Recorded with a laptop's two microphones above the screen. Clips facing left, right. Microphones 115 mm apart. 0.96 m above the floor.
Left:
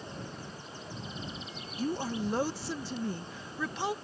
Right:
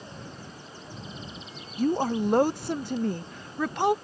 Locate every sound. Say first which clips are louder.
1.8 s a woman speaking: right 8 dB; 60° right (ahead or behind)